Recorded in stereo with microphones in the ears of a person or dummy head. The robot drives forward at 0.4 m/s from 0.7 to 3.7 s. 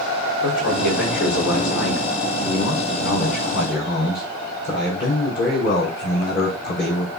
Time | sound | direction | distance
0.4 | a man speaking | 70° left (ahead or behind) | 4.5 m